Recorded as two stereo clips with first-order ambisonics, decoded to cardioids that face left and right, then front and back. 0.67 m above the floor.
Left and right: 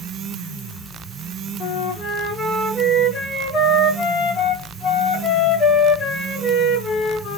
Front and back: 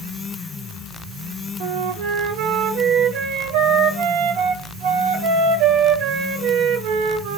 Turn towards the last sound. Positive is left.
turn(degrees=160)